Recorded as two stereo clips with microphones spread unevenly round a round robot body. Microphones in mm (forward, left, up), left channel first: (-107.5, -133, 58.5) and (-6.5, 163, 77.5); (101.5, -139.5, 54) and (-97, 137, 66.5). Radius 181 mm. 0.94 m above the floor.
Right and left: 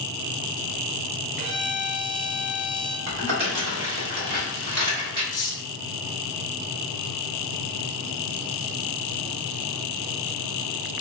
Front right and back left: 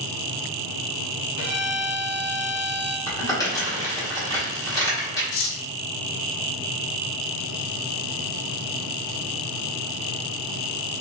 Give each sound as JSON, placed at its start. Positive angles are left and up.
{"t": 1.4, "sound": "a violin", "azimuth_deg": -5, "distance_m": 2.0}
{"t": 3.1, "sound": "crumpling", "azimuth_deg": 25, "distance_m": 1.5}
{"t": 5.3, "sound": "cutlery clinking", "azimuth_deg": -40, "distance_m": 0.7}